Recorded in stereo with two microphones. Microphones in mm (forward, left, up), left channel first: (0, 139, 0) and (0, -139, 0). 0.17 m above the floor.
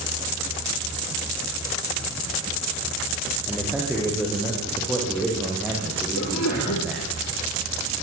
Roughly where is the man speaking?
Centre.